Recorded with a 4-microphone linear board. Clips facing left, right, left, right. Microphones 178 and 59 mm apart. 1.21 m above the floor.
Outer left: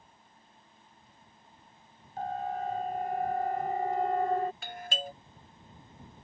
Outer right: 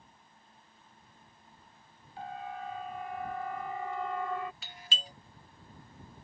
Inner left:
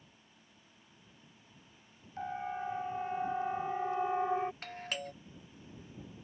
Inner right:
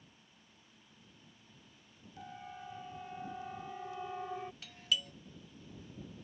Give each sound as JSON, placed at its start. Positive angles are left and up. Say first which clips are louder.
{"t": 2.2, "sound": "a siren", "louder": "outer left 7 dB, inner left 10 dB", "side_deg": 45}
{"t": 4.6, "sound": "a doorbell", "louder": "outer left 9 dB, inner right 2 dB", "side_deg": 55}